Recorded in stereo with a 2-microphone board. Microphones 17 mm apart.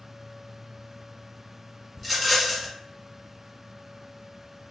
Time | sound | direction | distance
2.0 | a rattle | centre (ahead or behind) | 1.8 m